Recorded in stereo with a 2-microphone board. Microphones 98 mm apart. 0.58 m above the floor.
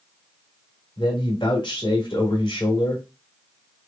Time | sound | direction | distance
1.0 | a man speaking | 55° left (ahead or behind) | 1.6 m